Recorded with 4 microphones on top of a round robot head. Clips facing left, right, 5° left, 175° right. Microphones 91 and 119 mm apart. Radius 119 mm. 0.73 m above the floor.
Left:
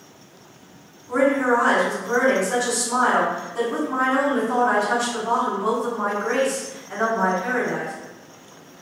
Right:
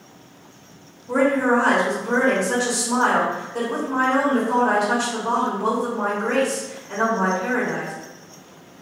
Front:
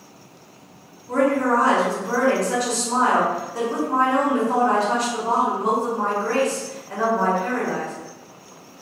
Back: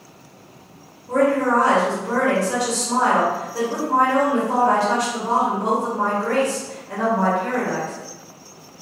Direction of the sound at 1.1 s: 90° right.